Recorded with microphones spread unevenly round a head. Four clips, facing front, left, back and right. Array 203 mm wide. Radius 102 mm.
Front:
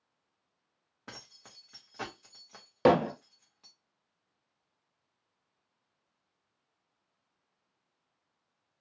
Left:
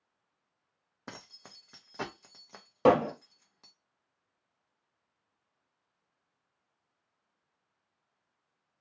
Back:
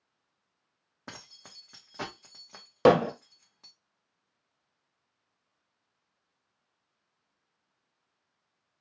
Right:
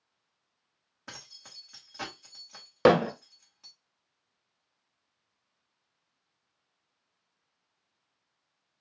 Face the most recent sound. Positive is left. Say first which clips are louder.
# right 2 dB, back 3 dB
turn(degrees=-125)